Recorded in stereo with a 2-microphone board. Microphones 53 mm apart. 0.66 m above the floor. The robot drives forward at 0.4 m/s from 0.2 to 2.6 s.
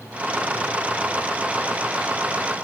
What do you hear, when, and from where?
Only background noise.